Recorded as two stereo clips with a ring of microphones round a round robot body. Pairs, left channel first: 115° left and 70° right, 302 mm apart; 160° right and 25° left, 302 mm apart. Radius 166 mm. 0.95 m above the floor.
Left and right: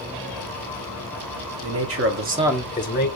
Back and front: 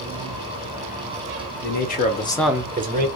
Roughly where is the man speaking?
Right.